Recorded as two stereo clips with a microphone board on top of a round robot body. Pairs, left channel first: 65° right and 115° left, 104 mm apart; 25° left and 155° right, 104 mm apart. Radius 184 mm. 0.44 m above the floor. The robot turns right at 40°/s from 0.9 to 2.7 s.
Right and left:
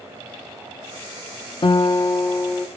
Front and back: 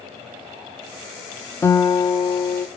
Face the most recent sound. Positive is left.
turn(degrees=5)